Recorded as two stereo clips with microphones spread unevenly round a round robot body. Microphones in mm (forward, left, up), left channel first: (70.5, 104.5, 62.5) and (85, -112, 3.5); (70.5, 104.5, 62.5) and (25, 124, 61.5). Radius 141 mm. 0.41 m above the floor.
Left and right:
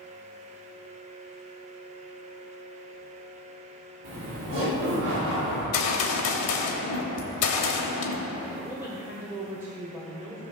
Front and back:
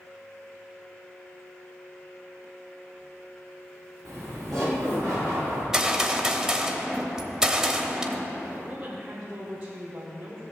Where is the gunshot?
80° left, 1.2 m.